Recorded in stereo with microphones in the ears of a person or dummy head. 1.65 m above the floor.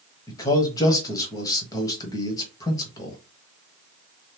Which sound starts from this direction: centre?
A man speaking, at 0.3 s.